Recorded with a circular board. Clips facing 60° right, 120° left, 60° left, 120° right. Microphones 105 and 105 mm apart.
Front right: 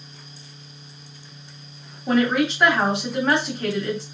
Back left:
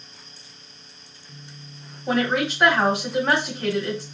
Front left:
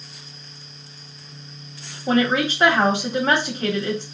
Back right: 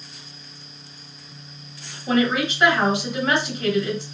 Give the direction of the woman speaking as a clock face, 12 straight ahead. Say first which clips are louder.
Front right 3 dB, front left 1 dB; 11 o'clock.